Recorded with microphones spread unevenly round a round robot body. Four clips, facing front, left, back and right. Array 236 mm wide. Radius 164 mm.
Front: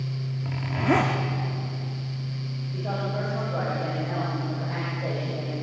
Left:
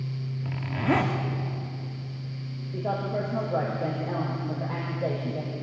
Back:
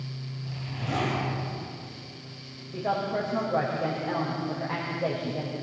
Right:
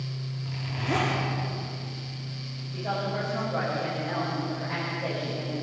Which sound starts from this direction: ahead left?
A zipper, at 0.4 s.